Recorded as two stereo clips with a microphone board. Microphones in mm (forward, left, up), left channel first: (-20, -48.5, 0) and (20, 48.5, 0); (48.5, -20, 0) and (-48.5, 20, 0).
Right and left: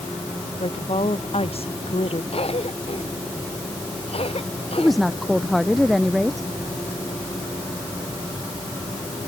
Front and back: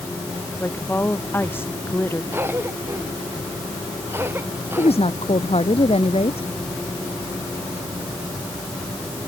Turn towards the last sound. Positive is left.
turn(degrees=-25)